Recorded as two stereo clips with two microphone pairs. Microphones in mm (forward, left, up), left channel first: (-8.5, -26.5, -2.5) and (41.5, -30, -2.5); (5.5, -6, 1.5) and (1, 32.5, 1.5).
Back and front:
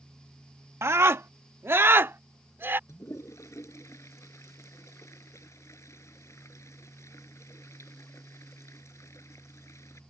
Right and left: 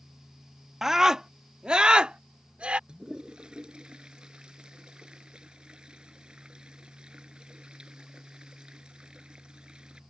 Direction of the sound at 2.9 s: 160° left.